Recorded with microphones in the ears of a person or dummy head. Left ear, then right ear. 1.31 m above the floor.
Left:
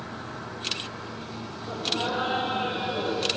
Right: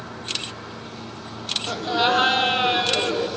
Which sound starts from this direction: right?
Laughter, at 1.7 s.